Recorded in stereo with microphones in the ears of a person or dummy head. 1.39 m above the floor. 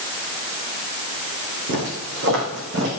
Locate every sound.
1.7 s footsteps: 60° right (ahead or behind), 5.5 m; by 2.9 s 65° right (ahead or behind), 6 m